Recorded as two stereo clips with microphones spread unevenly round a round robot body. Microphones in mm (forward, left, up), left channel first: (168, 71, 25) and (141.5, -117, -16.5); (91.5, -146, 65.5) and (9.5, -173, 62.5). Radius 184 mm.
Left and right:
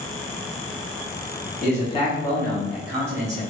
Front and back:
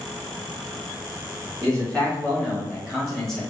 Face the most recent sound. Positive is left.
turn(degrees=-50)